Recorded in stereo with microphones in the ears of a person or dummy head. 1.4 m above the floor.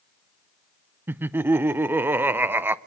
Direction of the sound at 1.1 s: 10° right (ahead or behind).